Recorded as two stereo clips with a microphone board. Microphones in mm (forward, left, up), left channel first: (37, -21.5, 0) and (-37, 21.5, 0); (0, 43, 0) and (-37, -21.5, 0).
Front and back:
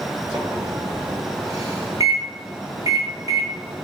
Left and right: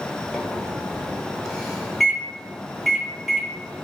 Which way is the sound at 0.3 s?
145° left.